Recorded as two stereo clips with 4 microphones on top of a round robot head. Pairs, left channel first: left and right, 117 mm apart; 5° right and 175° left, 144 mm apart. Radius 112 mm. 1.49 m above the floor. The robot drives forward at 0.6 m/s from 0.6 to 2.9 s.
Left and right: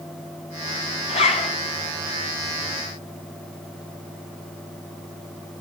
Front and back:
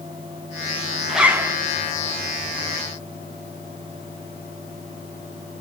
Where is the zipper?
85° left, 0.9 m; by 1.5 s 115° left, 0.9 m.